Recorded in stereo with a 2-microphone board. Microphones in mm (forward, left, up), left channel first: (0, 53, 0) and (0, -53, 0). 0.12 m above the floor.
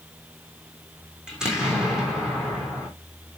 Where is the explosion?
5° right (ahead or behind), 3.5 m.